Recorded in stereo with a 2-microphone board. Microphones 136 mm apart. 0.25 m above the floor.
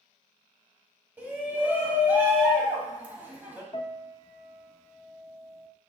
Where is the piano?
40° left (ahead or behind), 0.6 m.